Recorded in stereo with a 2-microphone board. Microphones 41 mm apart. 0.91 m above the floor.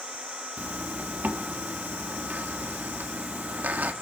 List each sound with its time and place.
0.6 s a zipper: 45° right (ahead or behind), 1.7 m